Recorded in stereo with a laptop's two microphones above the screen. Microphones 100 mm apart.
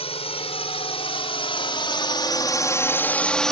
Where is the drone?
80° left; by 3.5 s 5° left (ahead or behind).